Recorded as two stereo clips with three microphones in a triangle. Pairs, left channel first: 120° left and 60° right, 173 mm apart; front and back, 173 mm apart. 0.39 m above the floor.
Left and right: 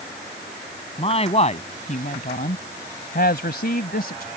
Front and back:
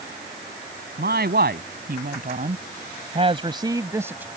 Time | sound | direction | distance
1.0 | a man speaking | 175° left | ?